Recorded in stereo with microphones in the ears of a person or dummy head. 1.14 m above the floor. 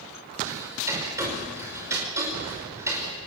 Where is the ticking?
15° right (ahead or behind), 5.5 m.